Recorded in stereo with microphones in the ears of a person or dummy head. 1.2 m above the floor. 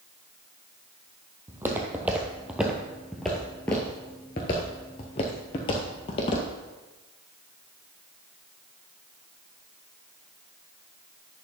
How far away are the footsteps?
About 1.8 m.